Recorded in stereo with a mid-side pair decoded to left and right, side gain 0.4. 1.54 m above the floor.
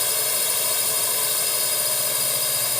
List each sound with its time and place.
0.0 s a drone: 20° left